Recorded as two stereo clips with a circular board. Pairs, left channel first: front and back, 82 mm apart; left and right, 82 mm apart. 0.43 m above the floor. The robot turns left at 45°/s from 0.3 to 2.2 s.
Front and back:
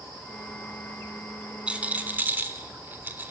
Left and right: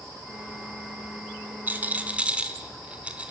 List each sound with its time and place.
1.7 s a rattle: 120° right, 1.3 m; by 3.3 s 145° right, 1.3 m